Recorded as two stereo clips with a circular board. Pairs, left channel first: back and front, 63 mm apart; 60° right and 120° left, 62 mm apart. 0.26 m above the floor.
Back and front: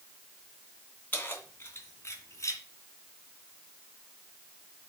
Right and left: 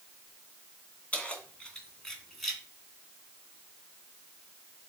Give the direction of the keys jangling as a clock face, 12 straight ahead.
4 o'clock.